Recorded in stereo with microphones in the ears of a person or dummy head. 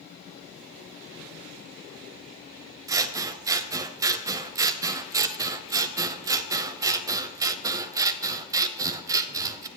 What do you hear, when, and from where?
2.9 s scissors: 10° right (ahead or behind), 0.5 m